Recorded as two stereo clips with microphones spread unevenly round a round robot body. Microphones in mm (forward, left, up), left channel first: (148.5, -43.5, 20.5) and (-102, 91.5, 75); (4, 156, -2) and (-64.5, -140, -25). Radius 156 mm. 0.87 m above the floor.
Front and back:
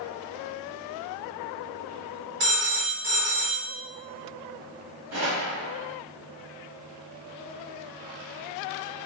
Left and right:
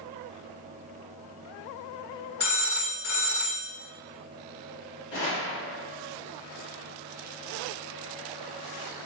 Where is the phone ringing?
140° left, 1.3 m.